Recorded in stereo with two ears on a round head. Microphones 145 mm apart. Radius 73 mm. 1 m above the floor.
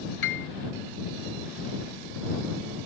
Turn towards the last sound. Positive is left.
turn(degrees=85)